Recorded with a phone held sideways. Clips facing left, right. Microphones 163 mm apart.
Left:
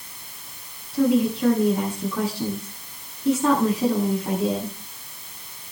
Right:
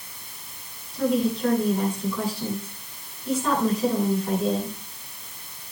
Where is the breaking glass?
No breaking glass in this recording.